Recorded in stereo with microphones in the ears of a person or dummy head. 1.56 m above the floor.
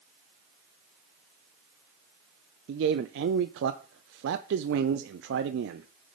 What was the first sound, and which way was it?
A man speaking, 65° right (ahead or behind).